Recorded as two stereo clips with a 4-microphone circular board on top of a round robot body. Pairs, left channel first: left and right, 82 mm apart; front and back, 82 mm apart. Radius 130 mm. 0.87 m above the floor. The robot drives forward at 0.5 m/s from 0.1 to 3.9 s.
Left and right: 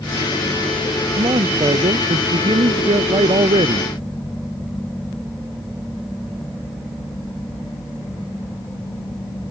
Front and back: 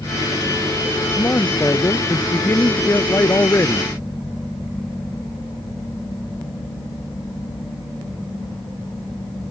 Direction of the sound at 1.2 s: 60° right.